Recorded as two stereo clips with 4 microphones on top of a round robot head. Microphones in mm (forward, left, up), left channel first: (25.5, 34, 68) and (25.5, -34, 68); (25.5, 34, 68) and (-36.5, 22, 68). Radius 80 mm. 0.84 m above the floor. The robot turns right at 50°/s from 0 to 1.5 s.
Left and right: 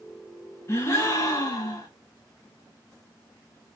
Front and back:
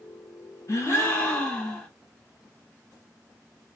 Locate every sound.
0.7 s a gasp: 45° left, 2.0 m; by 1.9 s 85° left, 2.0 m